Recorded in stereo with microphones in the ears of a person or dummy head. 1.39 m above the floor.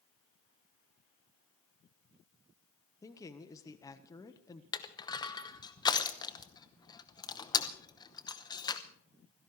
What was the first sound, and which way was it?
A man speaking, 15° left (ahead or behind).